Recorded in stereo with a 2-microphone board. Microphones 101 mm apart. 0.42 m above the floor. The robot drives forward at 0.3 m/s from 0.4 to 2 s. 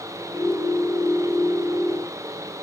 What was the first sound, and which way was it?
Only background noise.